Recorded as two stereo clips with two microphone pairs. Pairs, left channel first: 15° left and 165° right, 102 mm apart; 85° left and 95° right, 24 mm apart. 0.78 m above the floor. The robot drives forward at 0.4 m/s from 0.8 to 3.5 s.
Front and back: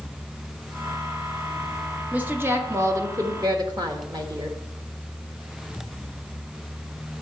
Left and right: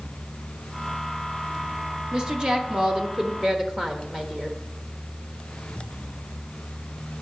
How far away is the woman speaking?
About 1.0 m.